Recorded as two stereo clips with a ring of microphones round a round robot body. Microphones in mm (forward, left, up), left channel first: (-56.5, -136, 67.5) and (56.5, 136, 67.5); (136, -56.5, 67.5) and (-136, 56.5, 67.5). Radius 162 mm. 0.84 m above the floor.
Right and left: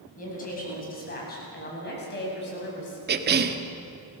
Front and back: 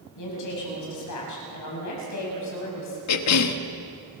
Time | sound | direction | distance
0.2 | a woman speaking | 50° right | 7.5 m
3.1 | a cough | 10° left | 1.5 m